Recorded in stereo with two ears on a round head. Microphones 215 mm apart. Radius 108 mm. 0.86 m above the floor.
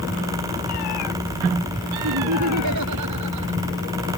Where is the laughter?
80° right.